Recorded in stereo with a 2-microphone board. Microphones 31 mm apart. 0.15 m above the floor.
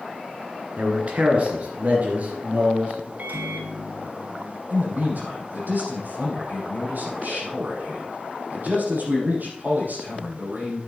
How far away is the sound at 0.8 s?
About 2.5 m.